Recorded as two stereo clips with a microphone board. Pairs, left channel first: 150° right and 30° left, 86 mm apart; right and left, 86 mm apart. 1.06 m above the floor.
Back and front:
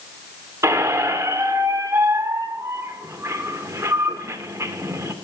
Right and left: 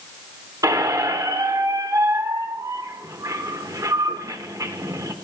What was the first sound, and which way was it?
A squeak, 70° left.